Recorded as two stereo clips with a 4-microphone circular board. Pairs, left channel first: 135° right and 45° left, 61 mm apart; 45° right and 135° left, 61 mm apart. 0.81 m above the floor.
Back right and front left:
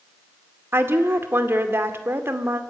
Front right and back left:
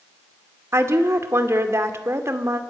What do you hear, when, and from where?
0.7 s a woman speaking: 95° left, 2 m